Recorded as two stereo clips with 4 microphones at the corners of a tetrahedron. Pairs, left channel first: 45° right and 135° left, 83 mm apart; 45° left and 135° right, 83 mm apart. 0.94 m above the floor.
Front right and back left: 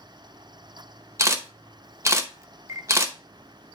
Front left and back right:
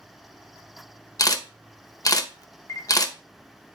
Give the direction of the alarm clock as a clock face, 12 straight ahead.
No alarm clock in this recording.